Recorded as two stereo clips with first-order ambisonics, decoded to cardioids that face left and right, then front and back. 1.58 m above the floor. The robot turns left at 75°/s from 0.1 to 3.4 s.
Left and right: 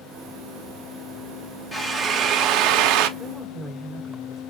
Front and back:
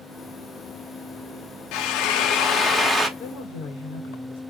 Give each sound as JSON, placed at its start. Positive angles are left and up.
{"t": 1.7, "sound": "a drill", "azimuth_deg": 10, "distance_m": 0.7}
{"t": 3.2, "sound": "a woman speaking", "azimuth_deg": 15, "distance_m": 1.0}